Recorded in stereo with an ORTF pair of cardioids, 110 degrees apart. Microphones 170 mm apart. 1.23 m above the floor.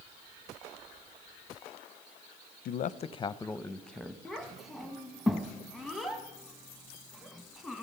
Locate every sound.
2.6 s a man speaking: 60° left, 0.5 m; by 4.2 s straight ahead, 1.0 m
4.2 s a child speaking: straight ahead, 1.1 m